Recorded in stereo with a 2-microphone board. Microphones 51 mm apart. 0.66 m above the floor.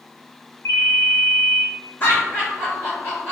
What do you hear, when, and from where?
0.7 s a ringtone: 75° left (ahead or behind), 0.7 m
2.0 s laughter: 40° left (ahead or behind), 1.5 m